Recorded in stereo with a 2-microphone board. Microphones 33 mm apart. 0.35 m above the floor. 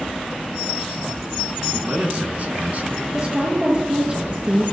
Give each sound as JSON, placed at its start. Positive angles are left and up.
{"t": 1.7, "sound": "a man speaking", "side_deg": -40, "distance_m": 5.0}
{"t": 3.1, "sound": "a woman speaking", "side_deg": -30, "distance_m": 6.0}